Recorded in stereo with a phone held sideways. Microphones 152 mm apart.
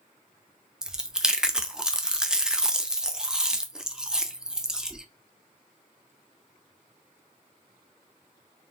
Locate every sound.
0.8 s chewing: 5° right (ahead or behind), 0.5 m